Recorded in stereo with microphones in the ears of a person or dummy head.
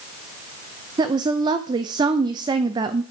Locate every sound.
1.0 s a woman speaking: 25° right (ahead or behind), 0.6 m